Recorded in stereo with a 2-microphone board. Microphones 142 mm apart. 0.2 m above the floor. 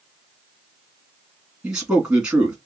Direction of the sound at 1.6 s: 5° right (ahead or behind).